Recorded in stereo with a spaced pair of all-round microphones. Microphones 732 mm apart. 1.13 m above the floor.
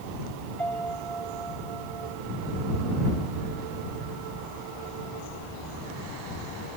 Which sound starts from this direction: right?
A piano, at 0.6 s.